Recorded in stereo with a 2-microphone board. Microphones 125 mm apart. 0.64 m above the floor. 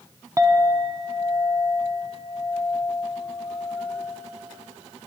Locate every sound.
0.4 s a clink: 25° right (ahead or behind), 0.6 m